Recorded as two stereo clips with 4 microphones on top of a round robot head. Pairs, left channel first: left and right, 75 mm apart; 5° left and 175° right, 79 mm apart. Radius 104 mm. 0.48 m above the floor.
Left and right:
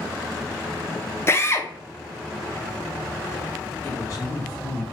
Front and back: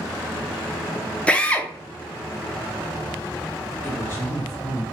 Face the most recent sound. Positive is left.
turn(degrees=60)